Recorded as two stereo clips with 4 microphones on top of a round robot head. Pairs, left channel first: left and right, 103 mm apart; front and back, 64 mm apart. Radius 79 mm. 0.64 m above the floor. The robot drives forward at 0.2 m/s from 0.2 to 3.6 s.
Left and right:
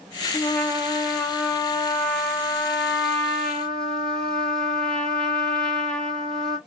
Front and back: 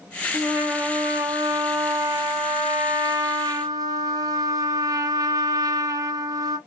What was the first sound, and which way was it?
A trumpet, 150° left.